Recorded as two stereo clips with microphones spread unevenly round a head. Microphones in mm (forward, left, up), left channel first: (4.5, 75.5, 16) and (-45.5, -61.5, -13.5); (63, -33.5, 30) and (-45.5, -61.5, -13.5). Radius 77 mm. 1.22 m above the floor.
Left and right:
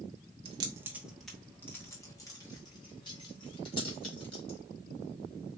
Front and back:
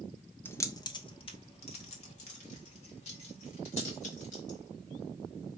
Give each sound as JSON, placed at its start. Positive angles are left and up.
{"t": 0.5, "sound": "keys jangling", "azimuth_deg": -50, "distance_m": 0.6}